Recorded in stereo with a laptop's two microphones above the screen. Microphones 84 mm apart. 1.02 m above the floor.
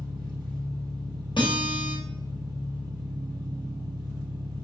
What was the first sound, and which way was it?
An engine running, 55° right (ahead or behind).